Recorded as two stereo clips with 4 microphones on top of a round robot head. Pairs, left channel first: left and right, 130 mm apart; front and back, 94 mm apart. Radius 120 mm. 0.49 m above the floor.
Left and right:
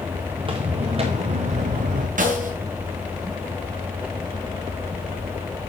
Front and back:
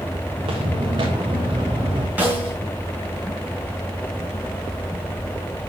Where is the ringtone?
No ringtone in this recording.